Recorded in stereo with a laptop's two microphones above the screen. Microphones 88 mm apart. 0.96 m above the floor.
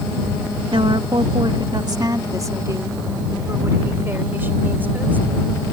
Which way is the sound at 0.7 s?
65° right (ahead or behind).